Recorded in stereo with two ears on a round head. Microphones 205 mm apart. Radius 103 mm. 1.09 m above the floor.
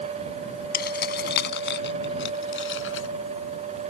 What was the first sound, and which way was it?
Keys jangling, 45° left (ahead or behind).